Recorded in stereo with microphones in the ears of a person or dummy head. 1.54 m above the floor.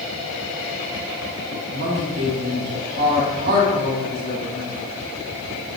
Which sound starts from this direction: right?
A woman speaking, at 1.7 s.